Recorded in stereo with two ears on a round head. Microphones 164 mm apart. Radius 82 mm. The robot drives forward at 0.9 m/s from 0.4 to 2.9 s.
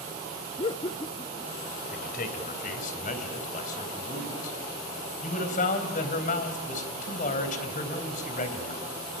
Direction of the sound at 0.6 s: 25° left (ahead or behind).